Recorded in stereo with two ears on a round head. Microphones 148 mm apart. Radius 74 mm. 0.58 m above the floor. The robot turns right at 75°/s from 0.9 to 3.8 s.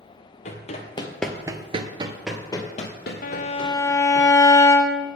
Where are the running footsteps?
45° left (ahead or behind), 1.1 m; by 4.2 s 40° left (ahead or behind), 2.0 m.